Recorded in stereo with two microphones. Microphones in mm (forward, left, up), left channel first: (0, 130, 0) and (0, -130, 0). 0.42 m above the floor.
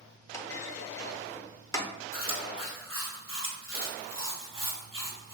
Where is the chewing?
55° right (ahead or behind), 1.6 m.